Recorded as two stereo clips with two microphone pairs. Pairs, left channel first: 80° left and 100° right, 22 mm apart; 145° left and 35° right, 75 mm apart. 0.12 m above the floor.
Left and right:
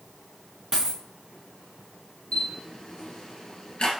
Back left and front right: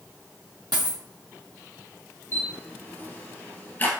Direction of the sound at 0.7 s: 40° right.